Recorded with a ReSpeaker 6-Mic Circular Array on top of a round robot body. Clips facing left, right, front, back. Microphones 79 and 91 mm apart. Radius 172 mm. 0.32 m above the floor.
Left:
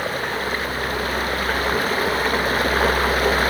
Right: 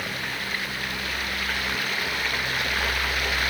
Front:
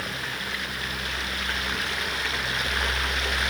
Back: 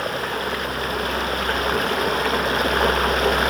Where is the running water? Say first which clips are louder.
Left 8 dB, back 9 dB; 140° left.